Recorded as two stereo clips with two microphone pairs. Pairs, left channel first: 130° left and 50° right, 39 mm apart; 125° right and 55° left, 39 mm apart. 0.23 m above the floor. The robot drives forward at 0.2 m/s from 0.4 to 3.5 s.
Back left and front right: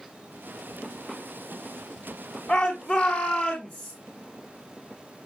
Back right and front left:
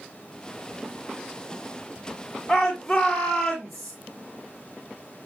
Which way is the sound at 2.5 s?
145° left.